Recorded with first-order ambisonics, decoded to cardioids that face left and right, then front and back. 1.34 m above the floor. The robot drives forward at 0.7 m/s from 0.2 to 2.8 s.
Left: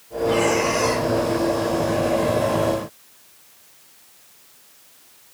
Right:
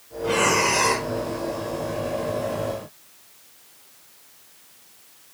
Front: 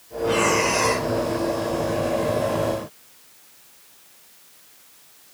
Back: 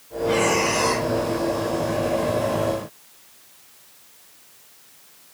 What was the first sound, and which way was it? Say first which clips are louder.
Breathing: left 1 dB, even; 70° right.